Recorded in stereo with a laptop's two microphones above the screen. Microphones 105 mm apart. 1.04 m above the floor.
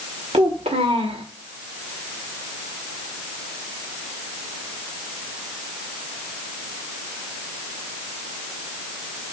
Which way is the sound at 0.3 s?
75° right (ahead or behind).